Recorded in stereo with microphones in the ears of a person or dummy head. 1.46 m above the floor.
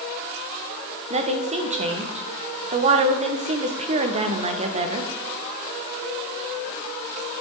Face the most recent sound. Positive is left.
turn(degrees=-35)  # may be behind; listen again after turning